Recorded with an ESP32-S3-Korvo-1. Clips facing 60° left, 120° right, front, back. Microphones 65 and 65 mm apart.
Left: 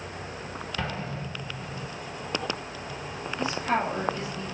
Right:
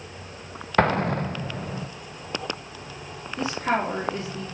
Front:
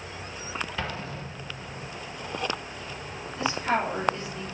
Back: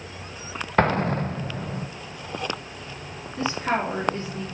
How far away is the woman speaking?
About 3 m.